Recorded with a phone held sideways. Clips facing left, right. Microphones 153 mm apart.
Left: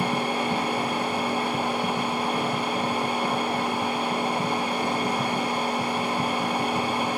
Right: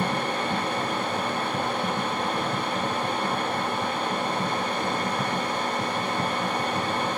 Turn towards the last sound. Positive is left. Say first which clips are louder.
# left 1 dB
turn(degrees=10)  # may be behind; listen again after turning